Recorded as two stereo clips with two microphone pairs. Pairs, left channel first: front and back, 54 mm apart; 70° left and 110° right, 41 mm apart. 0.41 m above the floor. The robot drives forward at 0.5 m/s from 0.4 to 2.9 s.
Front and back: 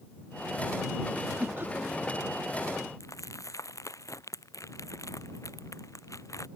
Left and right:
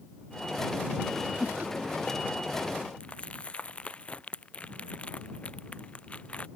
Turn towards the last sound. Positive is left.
turn(degrees=10)